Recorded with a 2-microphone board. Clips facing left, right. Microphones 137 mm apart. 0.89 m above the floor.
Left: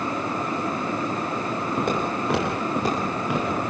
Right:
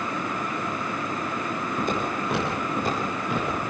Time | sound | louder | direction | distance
1.8 | footsteps | left 2 dB | 70° left (ahead or behind) | 8.5 m